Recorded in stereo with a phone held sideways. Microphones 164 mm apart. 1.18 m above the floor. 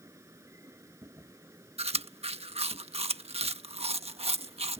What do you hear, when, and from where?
0.0 s a machine running: 15° right (ahead or behind)
1.8 s chewing: 40° right (ahead or behind)